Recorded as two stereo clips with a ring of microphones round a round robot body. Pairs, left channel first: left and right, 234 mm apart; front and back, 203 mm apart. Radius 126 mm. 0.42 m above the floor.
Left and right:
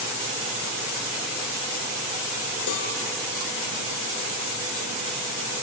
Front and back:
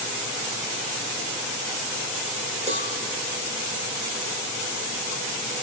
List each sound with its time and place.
2.7 s a cowbell: 120° left, 2.0 m